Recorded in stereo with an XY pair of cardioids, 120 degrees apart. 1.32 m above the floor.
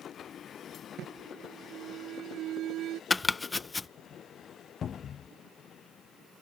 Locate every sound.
1.0 s an alarm: 65° right
3.1 s chopping: 20° left
4.8 s a cupboard door: 45° left